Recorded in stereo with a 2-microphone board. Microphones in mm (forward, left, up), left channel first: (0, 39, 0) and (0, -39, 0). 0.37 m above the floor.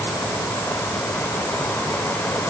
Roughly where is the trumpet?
No trumpet in this recording.